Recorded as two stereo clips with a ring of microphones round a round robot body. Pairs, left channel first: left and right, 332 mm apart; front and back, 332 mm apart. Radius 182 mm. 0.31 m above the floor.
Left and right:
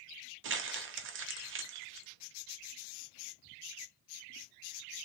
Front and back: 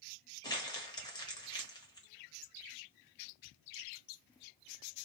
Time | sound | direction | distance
0.4 | crumpling | 70° right | 0.8 m